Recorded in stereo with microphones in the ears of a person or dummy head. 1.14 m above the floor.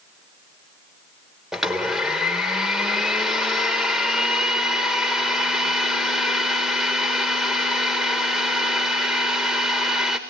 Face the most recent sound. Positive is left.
turn(degrees=0)  # may be behind; listen again after turning